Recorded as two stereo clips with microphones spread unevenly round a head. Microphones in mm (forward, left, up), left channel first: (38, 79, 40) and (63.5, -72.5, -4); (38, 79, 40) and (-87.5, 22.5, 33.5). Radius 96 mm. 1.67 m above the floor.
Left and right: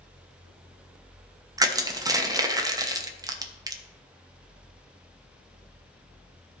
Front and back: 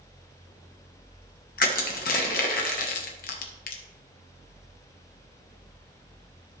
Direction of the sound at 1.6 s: 15° right.